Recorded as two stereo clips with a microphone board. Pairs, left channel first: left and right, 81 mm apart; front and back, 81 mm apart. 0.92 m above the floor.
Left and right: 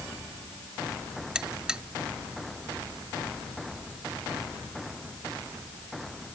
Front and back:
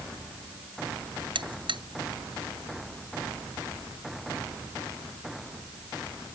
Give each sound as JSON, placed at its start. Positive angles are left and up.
{"t": 1.4, "sound": "a buzzer", "azimuth_deg": -170}